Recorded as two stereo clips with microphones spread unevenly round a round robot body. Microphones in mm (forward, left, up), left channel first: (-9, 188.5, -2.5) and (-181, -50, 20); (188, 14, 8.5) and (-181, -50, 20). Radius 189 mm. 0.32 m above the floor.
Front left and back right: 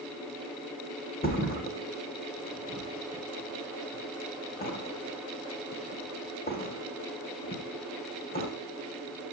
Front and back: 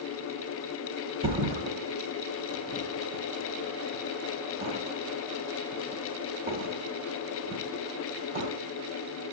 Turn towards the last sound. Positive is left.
turn(degrees=115)